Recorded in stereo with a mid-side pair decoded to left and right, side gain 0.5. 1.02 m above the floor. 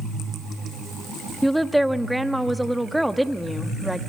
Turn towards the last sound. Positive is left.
turn(degrees=0)